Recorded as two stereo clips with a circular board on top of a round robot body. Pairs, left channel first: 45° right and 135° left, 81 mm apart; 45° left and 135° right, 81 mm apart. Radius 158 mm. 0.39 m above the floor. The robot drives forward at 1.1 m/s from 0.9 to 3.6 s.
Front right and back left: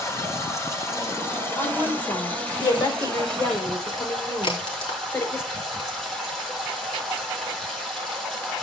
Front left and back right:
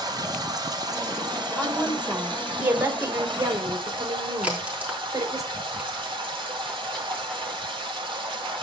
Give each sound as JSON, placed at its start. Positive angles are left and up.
{"t": 0.0, "sound": "running water", "azimuth_deg": -100, "distance_m": 4.0}
{"t": 1.6, "sound": "a woman speaking", "azimuth_deg": -50, "distance_m": 3.0}
{"t": 4.4, "sound": "a crack", "azimuth_deg": -60, "distance_m": 4.0}